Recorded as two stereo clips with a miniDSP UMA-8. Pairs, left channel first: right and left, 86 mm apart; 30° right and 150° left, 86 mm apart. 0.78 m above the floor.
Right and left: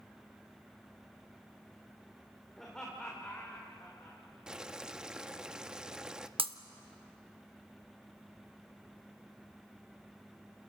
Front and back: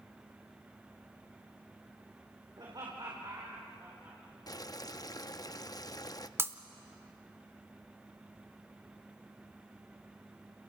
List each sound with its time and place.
2.6 s laughter: 175° right, 3 m; by 4.2 s 155° right, 4 m
4.5 s boiling: 10° left, 0.6 m
6.4 s breaking glass: 90° left, 0.8 m